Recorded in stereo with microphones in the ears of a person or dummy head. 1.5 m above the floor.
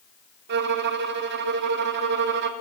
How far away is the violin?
About 0.5 m.